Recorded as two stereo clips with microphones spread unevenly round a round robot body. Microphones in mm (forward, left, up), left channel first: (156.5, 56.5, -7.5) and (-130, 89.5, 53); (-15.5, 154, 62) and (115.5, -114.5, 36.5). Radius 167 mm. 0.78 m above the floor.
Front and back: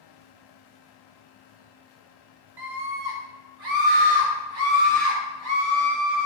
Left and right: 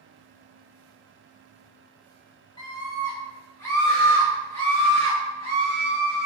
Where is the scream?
165° right, 3 m; by 6.3 s 155° right, 6.5 m.